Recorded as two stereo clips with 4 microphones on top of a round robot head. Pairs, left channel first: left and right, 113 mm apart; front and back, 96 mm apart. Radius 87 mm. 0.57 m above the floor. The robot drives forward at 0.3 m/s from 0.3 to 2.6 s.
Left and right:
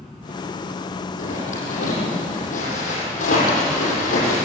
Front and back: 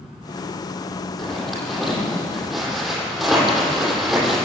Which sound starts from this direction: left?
A zipper, at 1.2 s.